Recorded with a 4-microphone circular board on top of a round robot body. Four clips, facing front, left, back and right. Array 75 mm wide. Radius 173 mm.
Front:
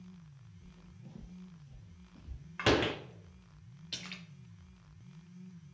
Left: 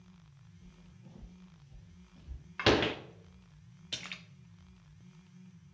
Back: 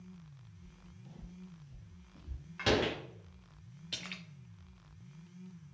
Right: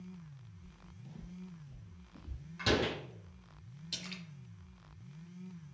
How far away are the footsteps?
About 0.7 m.